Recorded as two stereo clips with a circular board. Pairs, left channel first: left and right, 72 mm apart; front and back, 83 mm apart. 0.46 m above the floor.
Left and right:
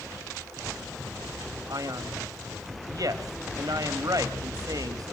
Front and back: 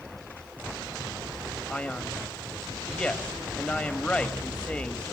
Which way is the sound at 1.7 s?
75° right.